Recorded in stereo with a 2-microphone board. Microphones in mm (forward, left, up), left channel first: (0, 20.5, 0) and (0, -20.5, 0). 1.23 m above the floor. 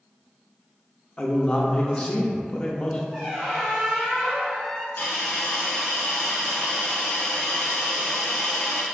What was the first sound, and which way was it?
A man speaking, 30° left (ahead or behind).